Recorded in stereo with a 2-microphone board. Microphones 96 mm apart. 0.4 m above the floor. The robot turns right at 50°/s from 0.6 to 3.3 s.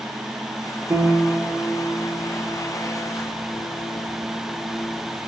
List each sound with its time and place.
0.9 s a piano: 45° right, 2.0 m; by 5.0 s 75° left, 2.0 m